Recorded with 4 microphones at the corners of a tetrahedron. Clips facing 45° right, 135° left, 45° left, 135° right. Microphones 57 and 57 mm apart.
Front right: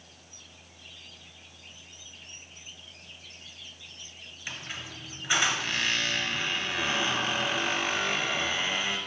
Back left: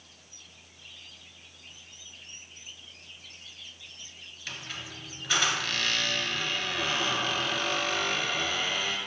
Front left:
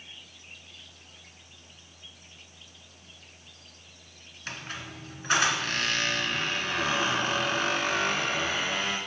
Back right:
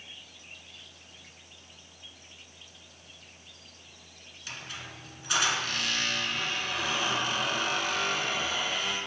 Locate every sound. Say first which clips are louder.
4.5 s a squeak: front right 1 dB, front left 3 dB; 20° left, 0.6 m